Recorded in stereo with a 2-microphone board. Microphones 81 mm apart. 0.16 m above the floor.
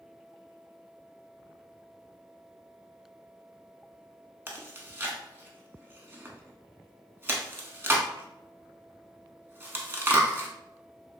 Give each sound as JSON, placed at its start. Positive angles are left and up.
{"t": 4.5, "sound": "chewing", "side_deg": -25, "distance_m": 0.5}